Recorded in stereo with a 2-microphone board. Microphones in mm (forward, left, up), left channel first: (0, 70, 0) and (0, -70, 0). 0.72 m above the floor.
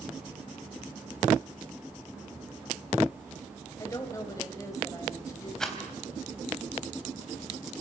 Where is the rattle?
5° left (ahead or behind), 3.5 m.